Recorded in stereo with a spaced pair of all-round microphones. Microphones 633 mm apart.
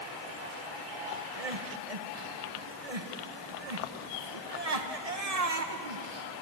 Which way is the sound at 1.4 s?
70° right (ahead or behind).